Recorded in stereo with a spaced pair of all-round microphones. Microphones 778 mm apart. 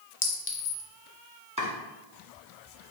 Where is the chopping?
10° right (ahead or behind), 1.3 m.